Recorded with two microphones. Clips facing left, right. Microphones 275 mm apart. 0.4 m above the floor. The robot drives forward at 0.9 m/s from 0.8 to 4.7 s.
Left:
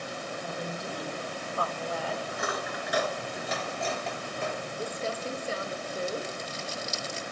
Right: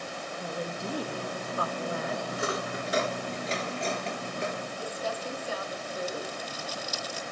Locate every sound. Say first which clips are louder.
0.4 s a woman speaking: right 4 dB; 35° right (ahead or behind), 1.3 m; by 2.2 s 20° right (ahead or behind), 2 m
2.3 s cutlery clinking: right 2 dB; 30° right (ahead or behind), 3 m; by 4.6 s 20° right (ahead or behind), 5 m
4.8 s crumpling: left 3 dB; 30° left (ahead or behind), 0.8 m